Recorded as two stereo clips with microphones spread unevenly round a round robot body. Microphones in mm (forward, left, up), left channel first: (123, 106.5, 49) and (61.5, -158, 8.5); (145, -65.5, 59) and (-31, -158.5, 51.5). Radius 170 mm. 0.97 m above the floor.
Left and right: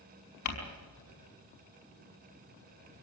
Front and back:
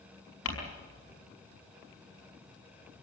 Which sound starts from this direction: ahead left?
Crumpling, at 0.5 s.